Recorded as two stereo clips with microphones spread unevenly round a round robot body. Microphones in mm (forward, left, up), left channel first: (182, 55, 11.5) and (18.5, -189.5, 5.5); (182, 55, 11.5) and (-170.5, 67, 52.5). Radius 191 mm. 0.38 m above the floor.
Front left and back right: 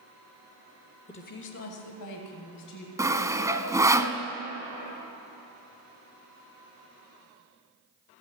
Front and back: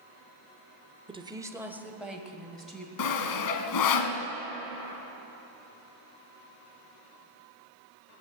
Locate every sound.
1.1 s a woman speaking: 110° left, 0.9 m; by 2.9 s 85° left, 3.5 m
3.0 s sawing: 45° right, 1.1 m